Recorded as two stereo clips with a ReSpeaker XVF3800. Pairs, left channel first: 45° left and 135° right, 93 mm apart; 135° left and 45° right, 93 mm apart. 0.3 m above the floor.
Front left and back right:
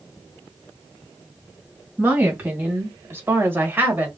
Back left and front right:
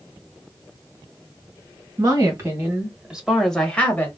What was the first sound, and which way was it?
A woman speaking, 75° right.